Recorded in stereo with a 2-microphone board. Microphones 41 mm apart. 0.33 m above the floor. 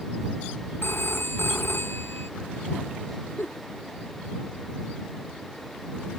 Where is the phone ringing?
65° left (ahead or behind).